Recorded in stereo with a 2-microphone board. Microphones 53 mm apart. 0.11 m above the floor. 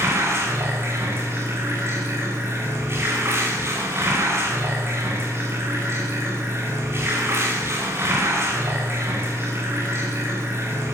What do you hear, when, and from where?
0.0 s running water: 50° right (ahead or behind), 9.5 m